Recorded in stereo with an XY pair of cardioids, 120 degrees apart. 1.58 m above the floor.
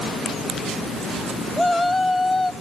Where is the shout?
15° left, 2 m.